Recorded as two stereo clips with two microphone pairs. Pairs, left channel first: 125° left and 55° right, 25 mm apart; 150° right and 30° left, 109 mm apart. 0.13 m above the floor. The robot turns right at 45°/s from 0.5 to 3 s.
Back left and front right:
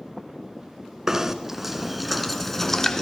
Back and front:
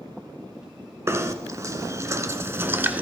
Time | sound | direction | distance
1.1 | knocking | straight ahead | 0.8 m